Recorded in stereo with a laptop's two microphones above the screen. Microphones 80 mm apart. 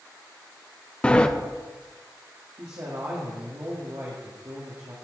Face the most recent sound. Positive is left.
turn(degrees=-45)  # may be behind; listen again after turning